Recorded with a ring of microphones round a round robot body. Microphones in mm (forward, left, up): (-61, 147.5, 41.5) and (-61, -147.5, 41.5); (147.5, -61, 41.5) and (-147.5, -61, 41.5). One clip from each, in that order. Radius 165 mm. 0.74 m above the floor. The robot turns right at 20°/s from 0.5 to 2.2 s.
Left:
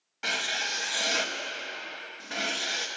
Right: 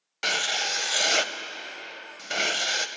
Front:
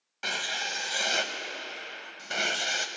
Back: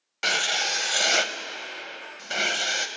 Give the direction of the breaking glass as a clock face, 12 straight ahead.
I don't hear breaking glass.